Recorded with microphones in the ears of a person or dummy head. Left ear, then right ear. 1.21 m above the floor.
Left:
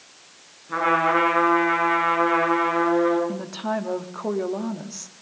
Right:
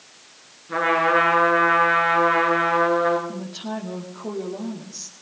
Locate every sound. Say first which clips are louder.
0.7 s a trumpet: right 1 dB; centre (ahead or behind), 9 m
3.3 s a woman speaking: left 4 dB; 65° left (ahead or behind), 2.5 m